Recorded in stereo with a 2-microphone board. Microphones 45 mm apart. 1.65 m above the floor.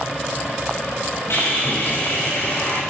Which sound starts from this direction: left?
Sawing, at 1.3 s.